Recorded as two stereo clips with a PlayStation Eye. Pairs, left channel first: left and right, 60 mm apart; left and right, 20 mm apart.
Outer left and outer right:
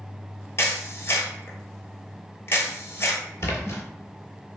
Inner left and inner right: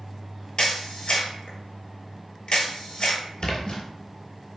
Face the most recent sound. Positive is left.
turn(degrees=55)  # may be behind; listen again after turning